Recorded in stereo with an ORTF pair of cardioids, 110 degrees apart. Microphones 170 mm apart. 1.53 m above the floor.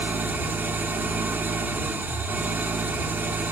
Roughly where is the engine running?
Ahead.